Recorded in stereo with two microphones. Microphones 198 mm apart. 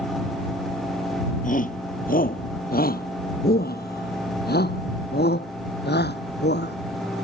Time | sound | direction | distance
1.4 | a shout | 40° left (ahead or behind) | ?